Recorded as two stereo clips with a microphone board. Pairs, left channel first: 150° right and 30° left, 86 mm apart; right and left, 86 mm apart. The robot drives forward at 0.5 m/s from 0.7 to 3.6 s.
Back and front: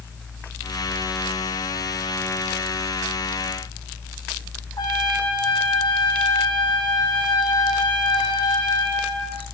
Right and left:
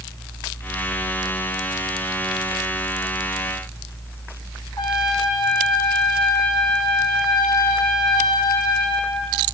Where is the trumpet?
120° right, 3.5 m.